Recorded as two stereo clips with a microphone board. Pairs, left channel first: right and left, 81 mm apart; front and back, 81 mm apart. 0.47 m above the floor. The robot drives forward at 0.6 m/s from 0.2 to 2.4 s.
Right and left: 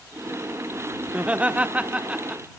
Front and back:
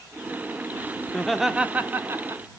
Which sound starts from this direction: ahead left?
Laughter, at 1.1 s.